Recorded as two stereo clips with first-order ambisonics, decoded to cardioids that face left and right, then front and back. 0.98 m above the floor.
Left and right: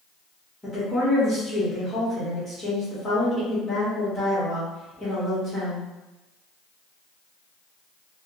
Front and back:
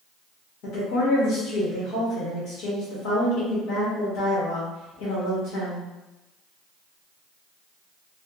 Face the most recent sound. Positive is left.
turn(degrees=20)